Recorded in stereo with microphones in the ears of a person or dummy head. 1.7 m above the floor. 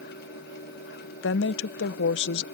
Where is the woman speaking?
80° left.